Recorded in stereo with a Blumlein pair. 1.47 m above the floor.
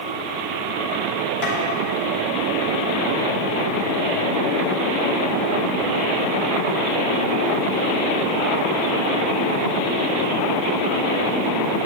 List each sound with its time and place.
1.4 s tapping: 45° left, 2.5 m